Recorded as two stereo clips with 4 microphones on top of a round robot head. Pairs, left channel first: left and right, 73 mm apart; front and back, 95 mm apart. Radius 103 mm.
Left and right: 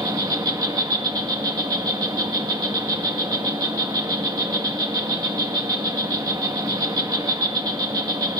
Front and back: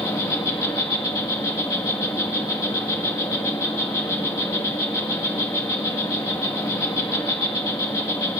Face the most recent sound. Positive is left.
turn(degrees=-60)